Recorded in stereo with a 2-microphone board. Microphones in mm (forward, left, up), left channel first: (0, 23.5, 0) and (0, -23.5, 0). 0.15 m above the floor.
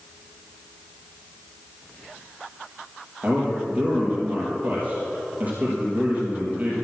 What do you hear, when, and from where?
3.2 s a man speaking: 35° right (ahead or behind), 4.5 m